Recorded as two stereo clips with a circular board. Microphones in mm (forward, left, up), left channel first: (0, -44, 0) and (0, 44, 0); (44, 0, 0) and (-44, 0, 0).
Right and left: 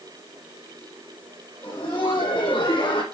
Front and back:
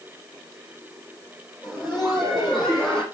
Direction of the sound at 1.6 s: 90° right.